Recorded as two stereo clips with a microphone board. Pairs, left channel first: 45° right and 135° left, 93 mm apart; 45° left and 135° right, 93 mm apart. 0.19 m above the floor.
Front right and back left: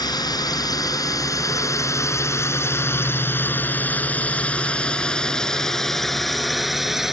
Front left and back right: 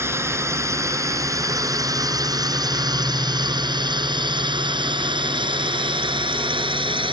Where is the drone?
75° right; by 7.1 s 140° right.